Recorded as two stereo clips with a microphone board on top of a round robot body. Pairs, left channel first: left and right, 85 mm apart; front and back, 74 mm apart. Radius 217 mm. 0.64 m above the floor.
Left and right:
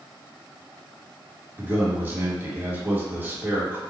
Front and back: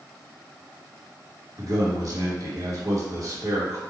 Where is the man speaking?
155° right, 1.7 m.